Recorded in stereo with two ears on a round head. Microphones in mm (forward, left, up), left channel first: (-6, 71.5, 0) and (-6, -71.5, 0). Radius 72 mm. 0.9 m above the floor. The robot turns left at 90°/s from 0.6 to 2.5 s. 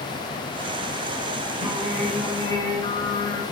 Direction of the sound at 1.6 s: 135° right.